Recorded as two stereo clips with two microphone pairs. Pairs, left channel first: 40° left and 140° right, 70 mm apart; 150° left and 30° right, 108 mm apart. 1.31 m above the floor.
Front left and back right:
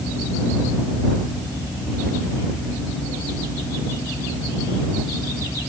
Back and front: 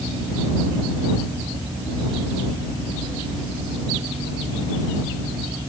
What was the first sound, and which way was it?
Only background noise.